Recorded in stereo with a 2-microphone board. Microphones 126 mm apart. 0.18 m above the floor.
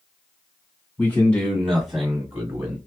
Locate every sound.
1.0 s a man speaking: 15° left (ahead or behind), 1.9 m; by 2.8 s 20° right (ahead or behind), 1.6 m